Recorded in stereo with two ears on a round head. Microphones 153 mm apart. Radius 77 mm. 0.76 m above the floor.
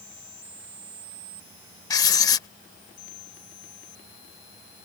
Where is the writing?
20° left (ahead or behind).